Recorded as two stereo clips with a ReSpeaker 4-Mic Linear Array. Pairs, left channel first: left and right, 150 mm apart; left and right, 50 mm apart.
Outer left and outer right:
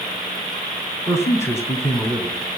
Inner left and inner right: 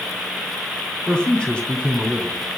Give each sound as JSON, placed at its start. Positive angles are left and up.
{"t": 1.1, "sound": "a man speaking", "side_deg": 20, "distance_m": 2.5}